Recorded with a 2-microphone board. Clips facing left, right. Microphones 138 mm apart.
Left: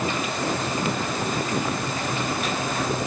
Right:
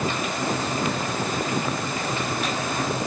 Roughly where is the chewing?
No chewing in this recording.